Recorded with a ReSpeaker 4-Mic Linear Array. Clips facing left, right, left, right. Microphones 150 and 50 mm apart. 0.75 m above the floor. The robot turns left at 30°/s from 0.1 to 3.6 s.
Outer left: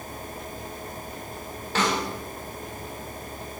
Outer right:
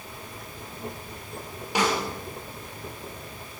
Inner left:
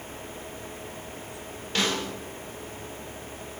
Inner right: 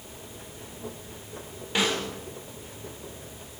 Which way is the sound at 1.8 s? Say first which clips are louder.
Even, inner right 1 dB; 15° right (ahead or behind).